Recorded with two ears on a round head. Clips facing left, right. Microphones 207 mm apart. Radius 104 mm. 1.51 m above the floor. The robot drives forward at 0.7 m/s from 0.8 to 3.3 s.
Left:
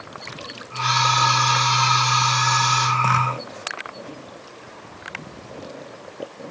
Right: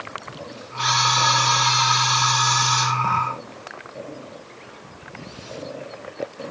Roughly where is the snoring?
I don't hear snoring.